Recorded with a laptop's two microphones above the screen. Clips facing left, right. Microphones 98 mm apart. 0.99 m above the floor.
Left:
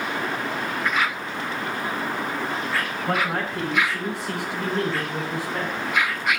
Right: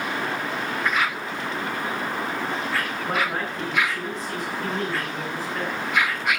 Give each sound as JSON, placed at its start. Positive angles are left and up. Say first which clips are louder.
{"t": 3.1, "sound": "a man speaking", "louder": "left 2 dB", "side_deg": 90, "distance_m": 8.5}